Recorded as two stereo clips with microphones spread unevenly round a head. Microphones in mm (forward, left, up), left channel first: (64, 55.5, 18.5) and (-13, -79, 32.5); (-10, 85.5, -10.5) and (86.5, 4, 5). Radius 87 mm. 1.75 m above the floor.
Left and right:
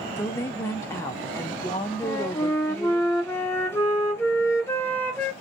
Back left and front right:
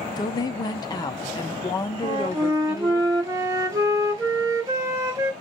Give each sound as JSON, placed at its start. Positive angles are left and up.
{"t": 0.2, "sound": "a woman speaking", "azimuth_deg": 130, "distance_m": 0.5}
{"t": 2.0, "sound": "a flute", "azimuth_deg": -15, "distance_m": 0.8}